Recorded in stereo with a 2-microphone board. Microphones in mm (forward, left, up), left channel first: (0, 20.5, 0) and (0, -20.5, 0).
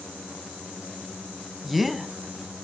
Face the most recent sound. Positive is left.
turn(degrees=-5)  # may be behind; listen again after turning